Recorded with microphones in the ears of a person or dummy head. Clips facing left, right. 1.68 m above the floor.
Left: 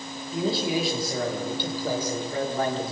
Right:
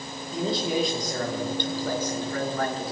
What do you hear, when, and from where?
0.3 s a man speaking: centre (ahead or behind), 5.5 m; by 2.9 s 25° left (ahead or behind), 3 m